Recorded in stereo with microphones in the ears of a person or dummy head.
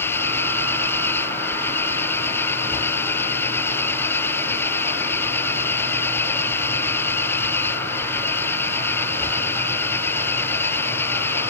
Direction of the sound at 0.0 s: 15° left (ahead or behind).